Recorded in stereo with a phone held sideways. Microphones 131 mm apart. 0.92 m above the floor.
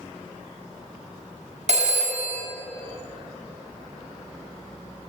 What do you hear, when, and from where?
1.7 s a phone ringing: 60° right (ahead or behind), 0.8 m